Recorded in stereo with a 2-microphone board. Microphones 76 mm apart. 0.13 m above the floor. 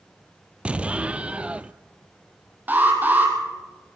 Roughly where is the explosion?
Centre.